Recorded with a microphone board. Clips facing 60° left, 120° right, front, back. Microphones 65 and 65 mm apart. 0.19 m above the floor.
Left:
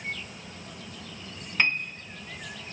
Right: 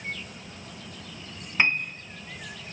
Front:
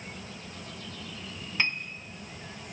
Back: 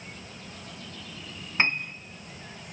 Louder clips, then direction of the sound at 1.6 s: Right 2 dB, back 4 dB; straight behind.